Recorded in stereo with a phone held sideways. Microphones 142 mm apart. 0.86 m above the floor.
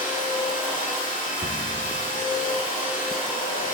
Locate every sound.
0.0 s a machine running: 60° left (ahead or behind), 1.8 m
1.4 s a cupboard door: 75° right (ahead or behind), 1.0 m